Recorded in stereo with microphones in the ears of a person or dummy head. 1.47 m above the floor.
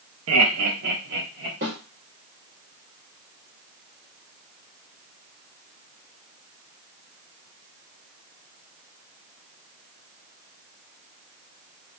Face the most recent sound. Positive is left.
turn(degrees=-45)  # may be behind; listen again after turning